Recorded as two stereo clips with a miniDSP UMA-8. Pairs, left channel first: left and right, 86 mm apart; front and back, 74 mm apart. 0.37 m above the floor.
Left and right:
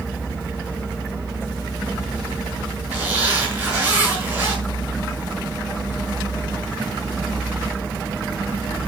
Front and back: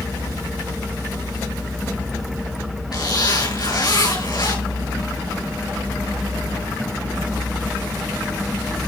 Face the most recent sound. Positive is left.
turn(degrees=-20)